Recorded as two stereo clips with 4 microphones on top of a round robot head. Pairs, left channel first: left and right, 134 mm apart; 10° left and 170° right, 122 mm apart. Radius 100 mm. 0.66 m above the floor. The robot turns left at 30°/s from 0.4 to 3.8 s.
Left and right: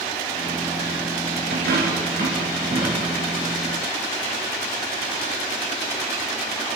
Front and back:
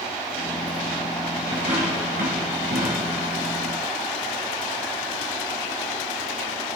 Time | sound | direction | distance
1.5 | a dropped coin | 110° right | 3.5 m